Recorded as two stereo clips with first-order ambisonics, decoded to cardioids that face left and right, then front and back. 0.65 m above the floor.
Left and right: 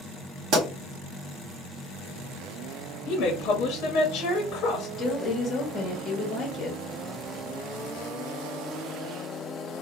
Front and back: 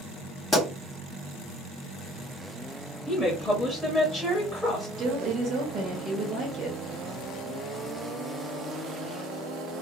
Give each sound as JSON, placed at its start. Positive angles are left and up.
{"t": 0.5, "sound": "a pop", "azimuth_deg": -80, "distance_m": 1.3}
{"t": 3.1, "sound": "a woman speaking", "azimuth_deg": 90, "distance_m": 0.9}
{"t": 5.0, "sound": "a woman speaking", "azimuth_deg": 145, "distance_m": 1.2}